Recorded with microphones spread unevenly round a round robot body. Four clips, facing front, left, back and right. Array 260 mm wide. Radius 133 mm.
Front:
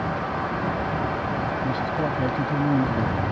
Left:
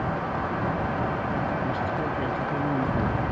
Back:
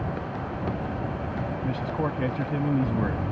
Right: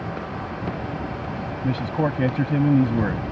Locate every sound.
1.6 s a man speaking: 85° right